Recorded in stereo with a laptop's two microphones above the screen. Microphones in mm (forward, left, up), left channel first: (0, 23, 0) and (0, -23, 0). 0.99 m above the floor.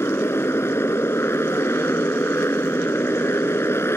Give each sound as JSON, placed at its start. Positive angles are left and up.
{"t": 0.0, "sound": "a motorcycle", "side_deg": 70}